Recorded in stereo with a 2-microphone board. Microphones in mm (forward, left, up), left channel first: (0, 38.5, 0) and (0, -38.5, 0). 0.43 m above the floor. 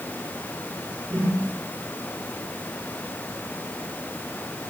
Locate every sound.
1.1 s a whoosh: 5° right (ahead or behind), 3.5 m